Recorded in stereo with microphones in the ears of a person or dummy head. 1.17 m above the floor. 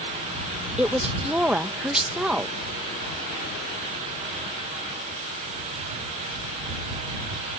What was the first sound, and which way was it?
A woman speaking, centre (ahead or behind).